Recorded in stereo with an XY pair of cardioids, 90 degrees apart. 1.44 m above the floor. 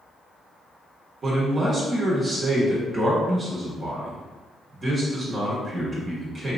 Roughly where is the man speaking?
Ahead right.